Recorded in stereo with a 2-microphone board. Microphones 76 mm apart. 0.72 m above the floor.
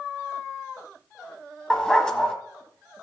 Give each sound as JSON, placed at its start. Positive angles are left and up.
{"t": 1.7, "sound": "a dog barking", "side_deg": 10, "distance_m": 1.3}